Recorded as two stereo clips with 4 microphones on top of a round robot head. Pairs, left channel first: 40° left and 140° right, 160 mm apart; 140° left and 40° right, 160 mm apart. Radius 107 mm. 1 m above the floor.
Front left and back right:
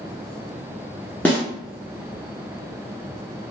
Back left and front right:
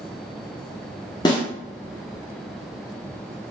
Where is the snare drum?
115° left, 0.5 m.